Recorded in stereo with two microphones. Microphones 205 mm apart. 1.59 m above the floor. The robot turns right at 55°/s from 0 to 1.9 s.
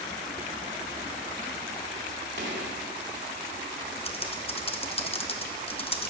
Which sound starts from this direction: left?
Typing on a keyboard, at 4.0 s.